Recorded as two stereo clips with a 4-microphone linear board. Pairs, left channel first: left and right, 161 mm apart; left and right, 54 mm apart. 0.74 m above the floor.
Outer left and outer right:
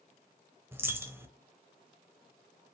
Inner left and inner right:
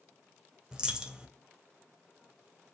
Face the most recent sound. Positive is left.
turn(degrees=-15)  # may be behind; listen again after turning